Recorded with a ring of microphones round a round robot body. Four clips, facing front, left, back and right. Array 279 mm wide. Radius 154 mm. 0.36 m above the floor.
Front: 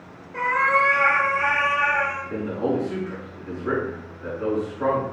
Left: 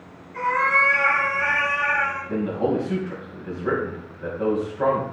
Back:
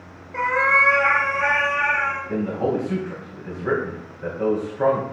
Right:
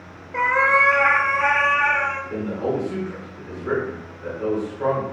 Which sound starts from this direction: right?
A cat meowing, at 0.3 s.